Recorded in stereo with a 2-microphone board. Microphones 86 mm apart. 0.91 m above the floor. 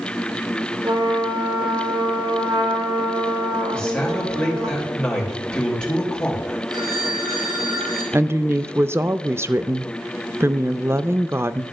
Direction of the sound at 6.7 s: 50° right (ahead or behind).